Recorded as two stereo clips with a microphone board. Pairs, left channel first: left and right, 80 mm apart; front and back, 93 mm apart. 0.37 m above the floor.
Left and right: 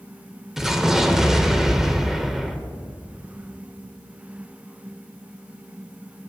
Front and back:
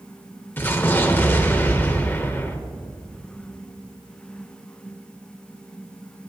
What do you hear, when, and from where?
0.6 s an explosion: 10° right, 1.3 m